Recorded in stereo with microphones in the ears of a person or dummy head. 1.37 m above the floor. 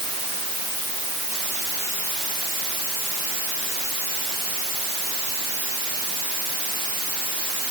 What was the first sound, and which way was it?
Only background noise.